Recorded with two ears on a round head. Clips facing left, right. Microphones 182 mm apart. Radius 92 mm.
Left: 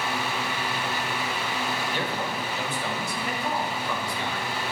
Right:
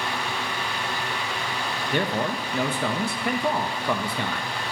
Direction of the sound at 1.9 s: 45° right (ahead or behind).